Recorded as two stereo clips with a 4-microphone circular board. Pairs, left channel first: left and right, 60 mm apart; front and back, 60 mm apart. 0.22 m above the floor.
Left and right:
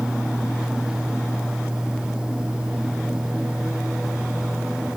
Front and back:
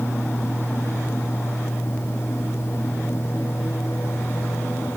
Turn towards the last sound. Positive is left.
No sound to turn to.